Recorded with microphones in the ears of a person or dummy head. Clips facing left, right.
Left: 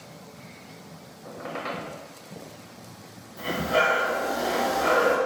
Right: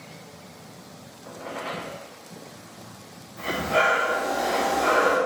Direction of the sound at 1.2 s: 60° left (ahead or behind).